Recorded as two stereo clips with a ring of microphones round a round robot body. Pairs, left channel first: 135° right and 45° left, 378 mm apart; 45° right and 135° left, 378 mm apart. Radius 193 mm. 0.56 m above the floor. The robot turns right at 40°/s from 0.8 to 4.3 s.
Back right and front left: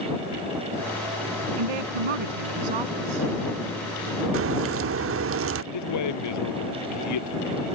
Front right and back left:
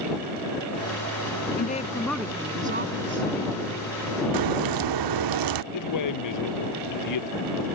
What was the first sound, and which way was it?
A woman speaking, 20° left.